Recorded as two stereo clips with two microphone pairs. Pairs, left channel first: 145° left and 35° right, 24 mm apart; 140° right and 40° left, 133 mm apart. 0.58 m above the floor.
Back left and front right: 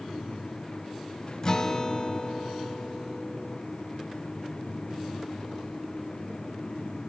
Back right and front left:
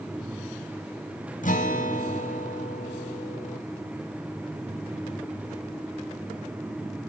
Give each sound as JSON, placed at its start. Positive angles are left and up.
{"t": 1.4, "sound": "a guitar", "azimuth_deg": -155, "distance_m": 1.1}